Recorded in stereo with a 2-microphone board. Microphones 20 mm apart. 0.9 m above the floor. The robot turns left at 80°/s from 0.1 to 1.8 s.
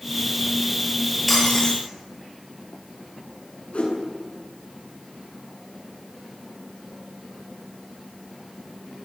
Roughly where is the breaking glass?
Behind.